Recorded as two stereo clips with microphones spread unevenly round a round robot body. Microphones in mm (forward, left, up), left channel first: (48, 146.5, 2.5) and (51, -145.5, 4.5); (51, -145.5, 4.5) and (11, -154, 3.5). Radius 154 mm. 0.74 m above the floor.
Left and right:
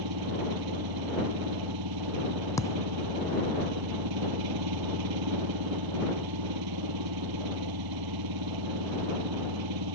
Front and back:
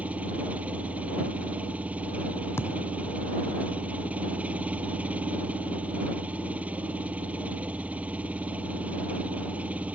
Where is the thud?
10° left.